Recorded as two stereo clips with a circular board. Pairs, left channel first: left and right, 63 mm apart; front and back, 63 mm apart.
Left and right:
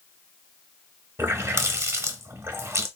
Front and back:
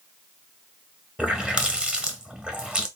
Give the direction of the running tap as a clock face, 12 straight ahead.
4 o'clock.